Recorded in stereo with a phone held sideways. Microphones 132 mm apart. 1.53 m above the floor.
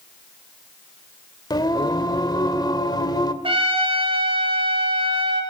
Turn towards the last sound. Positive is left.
turn(degrees=-45)  # may be behind; listen again after turning